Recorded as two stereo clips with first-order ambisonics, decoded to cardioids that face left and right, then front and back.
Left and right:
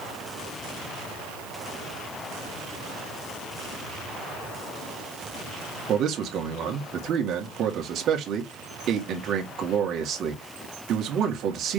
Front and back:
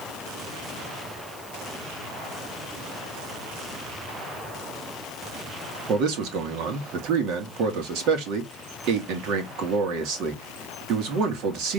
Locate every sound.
5.9 s a man speaking: 145° right, 2 m